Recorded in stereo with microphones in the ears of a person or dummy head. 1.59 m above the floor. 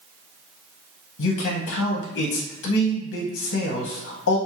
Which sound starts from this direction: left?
A man speaking, at 1.2 s.